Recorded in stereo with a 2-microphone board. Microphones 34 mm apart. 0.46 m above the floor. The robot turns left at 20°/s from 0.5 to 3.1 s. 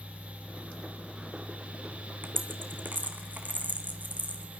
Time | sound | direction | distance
2.2 | a dropped coin | 70° right (ahead or behind) | 2.5 m